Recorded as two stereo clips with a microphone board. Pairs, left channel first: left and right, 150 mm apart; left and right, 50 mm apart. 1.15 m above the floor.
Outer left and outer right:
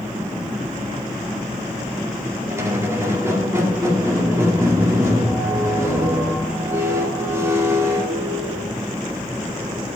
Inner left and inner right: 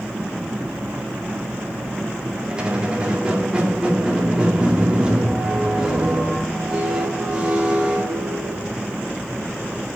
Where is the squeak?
20° right (ahead or behind), 1.9 m.